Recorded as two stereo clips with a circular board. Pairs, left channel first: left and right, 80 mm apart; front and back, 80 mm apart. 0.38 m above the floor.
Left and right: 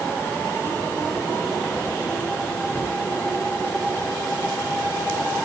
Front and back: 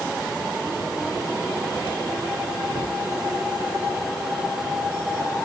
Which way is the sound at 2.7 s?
160° left.